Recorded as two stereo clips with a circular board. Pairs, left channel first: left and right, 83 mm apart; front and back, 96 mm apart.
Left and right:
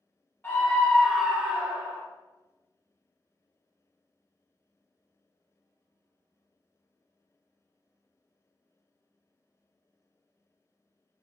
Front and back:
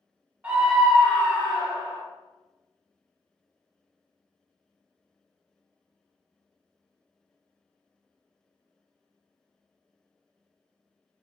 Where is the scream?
120° left, 0.9 m; by 2.0 s 30° right, 1.5 m.